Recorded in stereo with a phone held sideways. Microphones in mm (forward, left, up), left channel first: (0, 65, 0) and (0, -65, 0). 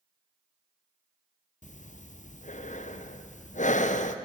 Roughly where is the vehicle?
I don't hear a vehicle.